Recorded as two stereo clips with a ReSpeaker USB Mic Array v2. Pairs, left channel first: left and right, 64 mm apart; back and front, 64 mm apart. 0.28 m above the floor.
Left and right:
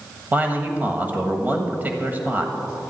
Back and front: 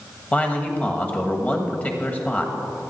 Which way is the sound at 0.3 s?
130° right.